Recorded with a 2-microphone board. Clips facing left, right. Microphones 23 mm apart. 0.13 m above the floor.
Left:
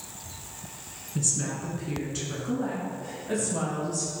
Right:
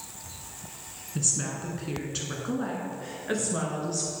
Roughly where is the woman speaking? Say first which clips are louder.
Even; centre.